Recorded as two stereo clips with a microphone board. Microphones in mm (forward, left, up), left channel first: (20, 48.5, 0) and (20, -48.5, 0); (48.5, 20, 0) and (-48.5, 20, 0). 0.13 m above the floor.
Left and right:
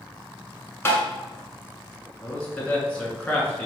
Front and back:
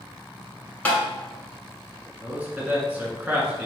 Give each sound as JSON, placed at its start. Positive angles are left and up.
{"t": 0.8, "sound": "tapping", "azimuth_deg": 60, "distance_m": 1.3}
{"t": 2.2, "sound": "a man speaking", "azimuth_deg": 140, "distance_m": 1.1}